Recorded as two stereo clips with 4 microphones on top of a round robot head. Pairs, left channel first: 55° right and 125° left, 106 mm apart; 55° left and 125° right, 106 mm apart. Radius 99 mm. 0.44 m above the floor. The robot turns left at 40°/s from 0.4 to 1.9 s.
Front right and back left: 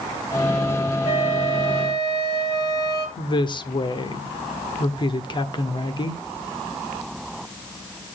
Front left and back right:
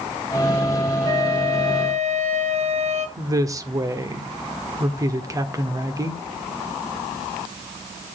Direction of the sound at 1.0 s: 75° right.